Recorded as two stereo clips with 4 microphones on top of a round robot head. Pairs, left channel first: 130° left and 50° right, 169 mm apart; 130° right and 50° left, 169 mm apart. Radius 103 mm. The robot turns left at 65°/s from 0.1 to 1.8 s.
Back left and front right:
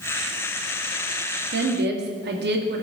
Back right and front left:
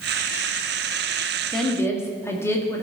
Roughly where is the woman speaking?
Ahead right.